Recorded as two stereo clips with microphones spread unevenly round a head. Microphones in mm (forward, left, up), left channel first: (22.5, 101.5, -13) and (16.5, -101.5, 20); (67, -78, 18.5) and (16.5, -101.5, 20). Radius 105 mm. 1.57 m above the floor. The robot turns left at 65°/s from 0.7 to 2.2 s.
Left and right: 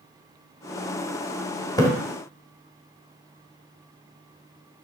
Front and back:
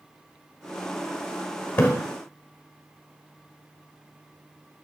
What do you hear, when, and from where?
1.8 s a splash: 15° left, 1.4 m; by 1.9 s 5° left, 1.4 m